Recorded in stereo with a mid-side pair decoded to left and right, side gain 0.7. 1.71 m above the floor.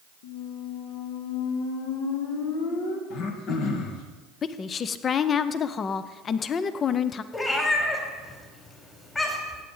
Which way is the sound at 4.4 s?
35° left.